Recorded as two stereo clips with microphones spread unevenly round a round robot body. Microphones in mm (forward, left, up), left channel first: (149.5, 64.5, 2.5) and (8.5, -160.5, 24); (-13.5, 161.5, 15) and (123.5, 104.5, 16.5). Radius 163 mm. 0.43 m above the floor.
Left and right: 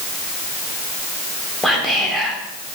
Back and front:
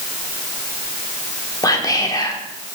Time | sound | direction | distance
1.6 | whispering | 140° left | 0.8 m